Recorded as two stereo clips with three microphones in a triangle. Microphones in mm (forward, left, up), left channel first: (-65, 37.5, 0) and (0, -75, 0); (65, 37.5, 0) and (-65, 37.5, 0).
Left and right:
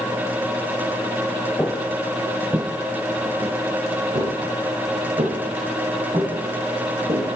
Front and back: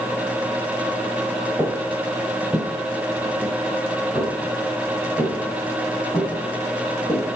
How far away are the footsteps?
About 1.2 m.